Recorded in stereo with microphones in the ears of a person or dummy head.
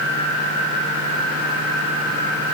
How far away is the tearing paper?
I don't hear tearing paper.